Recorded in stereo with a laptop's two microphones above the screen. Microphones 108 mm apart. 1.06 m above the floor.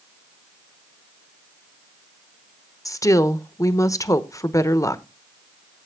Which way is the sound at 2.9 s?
30° left (ahead or behind).